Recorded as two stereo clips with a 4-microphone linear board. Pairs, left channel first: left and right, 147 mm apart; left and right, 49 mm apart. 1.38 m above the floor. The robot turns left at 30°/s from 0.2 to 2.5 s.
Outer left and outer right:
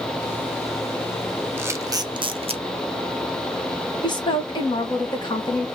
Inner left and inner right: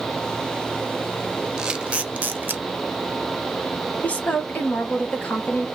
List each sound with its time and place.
1.6 s a camera shutter: 15° right (ahead or behind), 0.6 m; by 2.6 s 45° right (ahead or behind), 0.6 m
4.0 s a woman speaking: 30° left (ahead or behind), 1.4 m